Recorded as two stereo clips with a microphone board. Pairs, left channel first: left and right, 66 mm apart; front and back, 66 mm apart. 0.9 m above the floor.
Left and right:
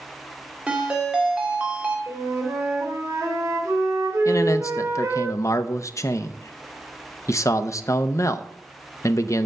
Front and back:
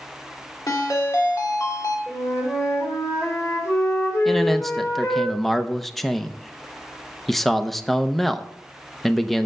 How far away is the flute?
About 3 m.